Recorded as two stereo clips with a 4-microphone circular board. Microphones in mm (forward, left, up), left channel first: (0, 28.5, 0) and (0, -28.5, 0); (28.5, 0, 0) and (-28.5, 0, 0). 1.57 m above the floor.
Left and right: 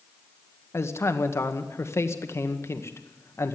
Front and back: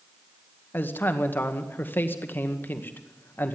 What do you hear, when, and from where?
0.7 s a man speaking: 50° left, 1.9 m